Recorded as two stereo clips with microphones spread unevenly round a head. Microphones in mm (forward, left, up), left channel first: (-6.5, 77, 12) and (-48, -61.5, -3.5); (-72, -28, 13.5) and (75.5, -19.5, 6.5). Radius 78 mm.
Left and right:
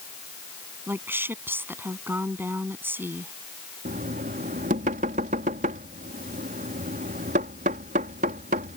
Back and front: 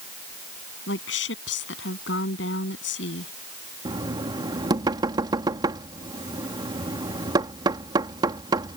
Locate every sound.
0.9 s a woman speaking: 175° left
3.9 s knocking: 60° right